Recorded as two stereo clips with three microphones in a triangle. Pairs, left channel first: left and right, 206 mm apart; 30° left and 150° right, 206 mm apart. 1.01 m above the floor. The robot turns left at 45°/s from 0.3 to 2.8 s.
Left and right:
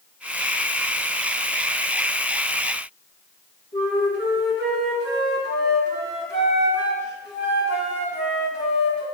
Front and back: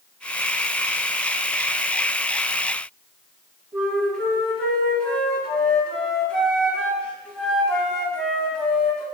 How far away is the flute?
About 2.5 m.